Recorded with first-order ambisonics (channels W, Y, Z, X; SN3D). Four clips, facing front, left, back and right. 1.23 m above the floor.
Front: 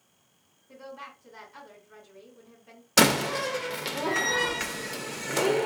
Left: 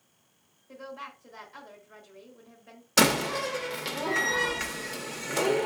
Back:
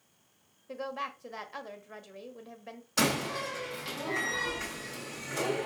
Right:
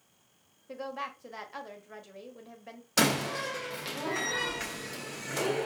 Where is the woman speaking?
145° right, 1.0 m.